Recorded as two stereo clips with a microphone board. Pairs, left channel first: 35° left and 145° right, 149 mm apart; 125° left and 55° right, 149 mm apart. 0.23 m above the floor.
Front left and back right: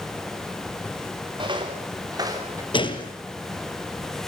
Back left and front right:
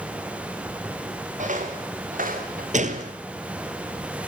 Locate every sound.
1.4 s footsteps: 90° right, 5.5 m; by 2.6 s 75° right, 6 m
2.7 s a gunshot: 20° right, 2.5 m